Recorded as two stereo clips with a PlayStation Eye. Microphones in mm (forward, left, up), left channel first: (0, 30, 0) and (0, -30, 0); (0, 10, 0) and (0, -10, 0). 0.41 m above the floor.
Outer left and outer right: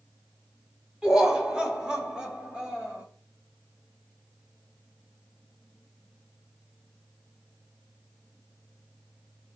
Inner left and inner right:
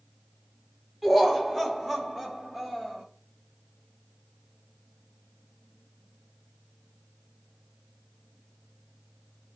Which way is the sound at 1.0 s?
15° right (ahead or behind).